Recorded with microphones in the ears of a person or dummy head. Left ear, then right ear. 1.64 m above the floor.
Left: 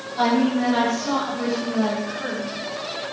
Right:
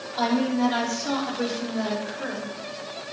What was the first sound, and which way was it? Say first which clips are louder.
A woman speaking: left 3 dB; 55° right (ahead or behind).